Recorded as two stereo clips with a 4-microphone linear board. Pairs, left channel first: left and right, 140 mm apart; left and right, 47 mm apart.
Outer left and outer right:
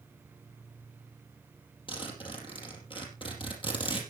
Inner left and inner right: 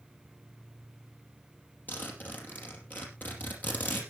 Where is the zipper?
35° left (ahead or behind), 4.5 m.